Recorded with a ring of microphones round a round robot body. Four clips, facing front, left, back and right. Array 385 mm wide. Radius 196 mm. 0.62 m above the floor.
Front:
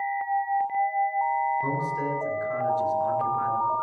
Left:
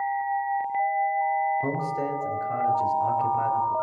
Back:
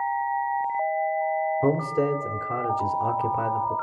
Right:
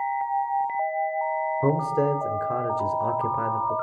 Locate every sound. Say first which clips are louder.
1.6 s a man speaking: right 5 dB, back 5 dB; 130° right, 2.5 m